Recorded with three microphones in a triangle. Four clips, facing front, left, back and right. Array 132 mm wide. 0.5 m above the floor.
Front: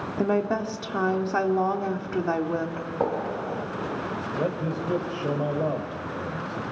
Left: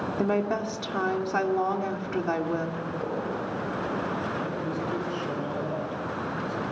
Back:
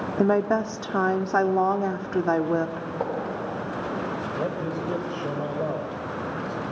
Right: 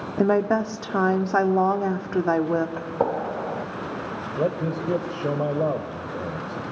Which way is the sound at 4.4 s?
90° right.